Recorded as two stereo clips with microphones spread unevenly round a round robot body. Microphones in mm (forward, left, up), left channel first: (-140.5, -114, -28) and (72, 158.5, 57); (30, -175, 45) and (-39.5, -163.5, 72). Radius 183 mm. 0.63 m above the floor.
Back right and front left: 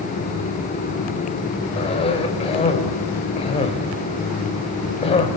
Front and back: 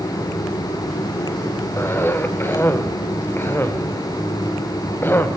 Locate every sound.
1.8 s a cough: 60° right, 2.5 m